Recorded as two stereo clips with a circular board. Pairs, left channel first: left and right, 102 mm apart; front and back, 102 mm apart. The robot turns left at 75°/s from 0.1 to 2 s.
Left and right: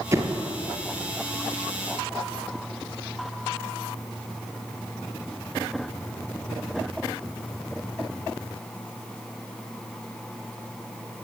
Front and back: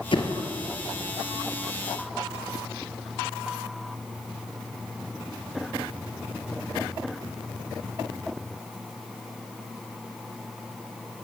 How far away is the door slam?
About 3 m.